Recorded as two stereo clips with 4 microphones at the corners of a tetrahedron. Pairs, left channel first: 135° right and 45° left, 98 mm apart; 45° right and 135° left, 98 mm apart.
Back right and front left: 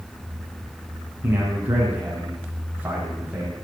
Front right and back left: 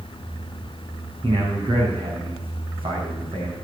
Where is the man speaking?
115° left, 5.5 m.